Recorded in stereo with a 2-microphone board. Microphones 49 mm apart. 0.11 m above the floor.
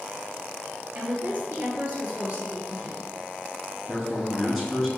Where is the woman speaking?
35° right (ahead or behind), 1.8 m.